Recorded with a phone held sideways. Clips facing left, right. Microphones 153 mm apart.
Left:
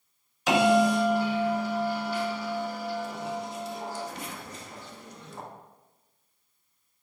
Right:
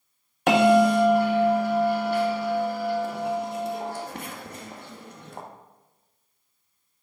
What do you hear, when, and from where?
0.5 s a bell: 60° right (ahead or behind), 1.2 m